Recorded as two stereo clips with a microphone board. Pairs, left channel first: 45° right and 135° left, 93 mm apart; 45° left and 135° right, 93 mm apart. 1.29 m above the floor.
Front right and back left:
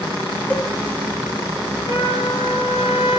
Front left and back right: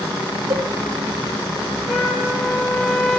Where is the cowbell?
115° right, 1.9 m.